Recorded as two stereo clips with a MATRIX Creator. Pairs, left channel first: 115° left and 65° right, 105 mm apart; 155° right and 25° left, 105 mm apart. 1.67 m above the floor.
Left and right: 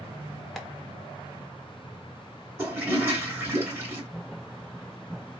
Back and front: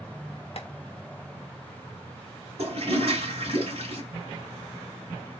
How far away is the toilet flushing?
About 3.5 m.